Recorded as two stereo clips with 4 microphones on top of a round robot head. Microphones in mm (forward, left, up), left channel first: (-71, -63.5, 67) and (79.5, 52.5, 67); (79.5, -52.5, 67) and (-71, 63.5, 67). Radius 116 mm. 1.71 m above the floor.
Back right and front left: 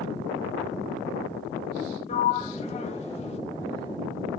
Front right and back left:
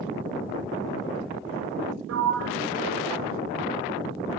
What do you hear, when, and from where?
2.1 s a sliding door: 160° left, 1.0 m